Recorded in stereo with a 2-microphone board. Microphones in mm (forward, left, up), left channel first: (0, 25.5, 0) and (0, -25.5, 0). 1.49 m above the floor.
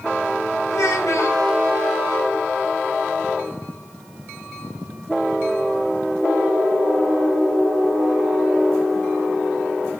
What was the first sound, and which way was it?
A child speaking, 80° left.